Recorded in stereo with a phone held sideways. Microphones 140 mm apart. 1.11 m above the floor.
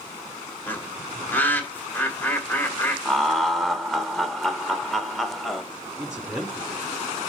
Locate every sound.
0.7 s a bird: 15° left (ahead or behind), 1.6 m
3.0 s laughter: centre (ahead or behind), 1.4 m
6.0 s a man speaking: 5° right (ahead or behind), 3.5 m